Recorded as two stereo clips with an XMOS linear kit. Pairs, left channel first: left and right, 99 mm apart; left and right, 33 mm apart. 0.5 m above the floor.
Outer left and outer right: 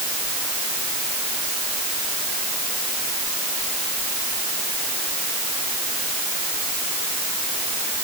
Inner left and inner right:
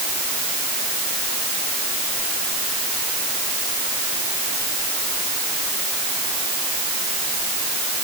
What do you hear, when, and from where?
Only background noise.